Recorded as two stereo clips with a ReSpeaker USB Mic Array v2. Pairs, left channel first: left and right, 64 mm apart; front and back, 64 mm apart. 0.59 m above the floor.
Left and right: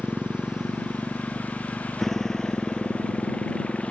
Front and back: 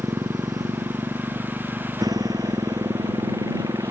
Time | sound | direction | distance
0.0 | a motorcycle | 165° right | ?